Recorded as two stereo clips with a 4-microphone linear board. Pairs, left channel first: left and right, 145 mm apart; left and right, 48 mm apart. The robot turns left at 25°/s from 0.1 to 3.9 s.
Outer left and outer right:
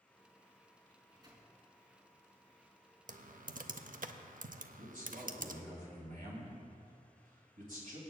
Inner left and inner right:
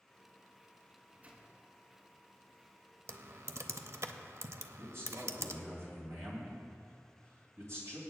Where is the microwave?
20° right (ahead or behind), 3 m; by 1.5 s 35° right (ahead or behind), 3 m.